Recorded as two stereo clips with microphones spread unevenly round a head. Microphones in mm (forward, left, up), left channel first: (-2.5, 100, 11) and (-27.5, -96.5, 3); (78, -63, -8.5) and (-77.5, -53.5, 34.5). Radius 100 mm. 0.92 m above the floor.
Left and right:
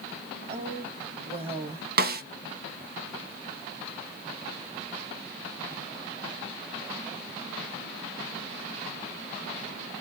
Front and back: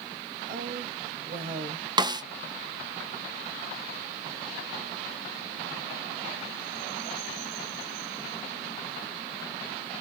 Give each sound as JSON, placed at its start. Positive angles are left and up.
{"t": 0.5, "sound": "a woman speaking", "azimuth_deg": -155, "distance_m": 2.5}
{"t": 2.0, "sound": "a snare drum", "azimuth_deg": -115, "distance_m": 0.7}